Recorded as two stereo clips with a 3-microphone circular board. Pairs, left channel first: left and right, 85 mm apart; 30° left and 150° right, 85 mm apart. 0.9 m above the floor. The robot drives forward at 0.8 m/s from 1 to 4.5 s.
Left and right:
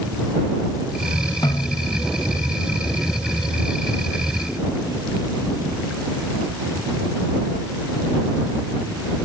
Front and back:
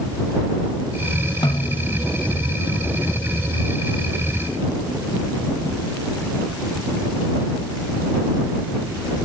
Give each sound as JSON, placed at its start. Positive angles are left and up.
{"t": 1.4, "sound": "a snare drum", "azimuth_deg": 55}